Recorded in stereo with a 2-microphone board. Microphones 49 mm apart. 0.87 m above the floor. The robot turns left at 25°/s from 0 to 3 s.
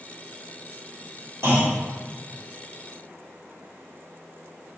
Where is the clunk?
80° right, 2.0 m; by 1.8 s 70° right (ahead or behind), 2.0 m.